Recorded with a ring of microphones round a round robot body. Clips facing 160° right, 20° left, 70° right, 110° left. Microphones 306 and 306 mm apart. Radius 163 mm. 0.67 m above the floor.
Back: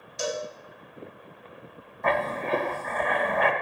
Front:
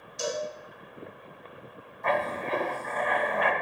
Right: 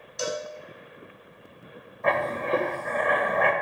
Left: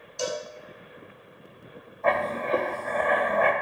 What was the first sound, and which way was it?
A cowbell, 135° right.